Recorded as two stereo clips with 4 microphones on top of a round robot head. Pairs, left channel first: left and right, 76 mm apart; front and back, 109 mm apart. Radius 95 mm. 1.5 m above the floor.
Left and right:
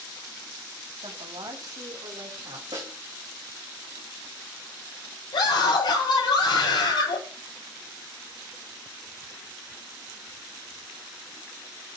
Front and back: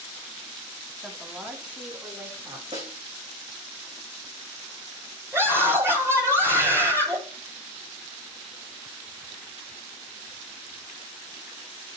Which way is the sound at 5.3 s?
115° left.